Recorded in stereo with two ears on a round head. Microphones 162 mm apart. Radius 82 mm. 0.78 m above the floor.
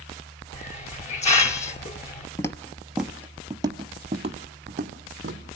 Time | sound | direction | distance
0.5 | a hiss | 40° left (ahead or behind) | 0.8 m
2.4 | footsteps | 15° left (ahead or behind) | 0.8 m